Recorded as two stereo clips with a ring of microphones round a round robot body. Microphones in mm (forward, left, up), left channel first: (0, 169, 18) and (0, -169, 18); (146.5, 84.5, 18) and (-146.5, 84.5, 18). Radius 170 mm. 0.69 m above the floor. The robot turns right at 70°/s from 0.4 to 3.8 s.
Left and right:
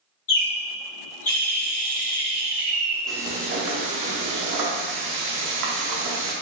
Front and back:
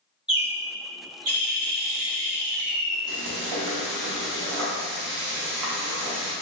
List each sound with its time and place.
0.3 s a bird: 95° left, 1.8 m; by 3.0 s 85° right, 1.8 m
3.1 s frying: 175° left, 0.8 m; by 6.3 s 130° right, 0.8 m